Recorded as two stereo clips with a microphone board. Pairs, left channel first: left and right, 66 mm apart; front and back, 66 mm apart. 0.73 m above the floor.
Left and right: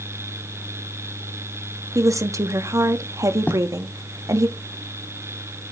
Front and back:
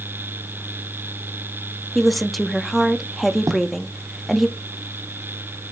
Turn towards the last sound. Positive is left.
turn(degrees=150)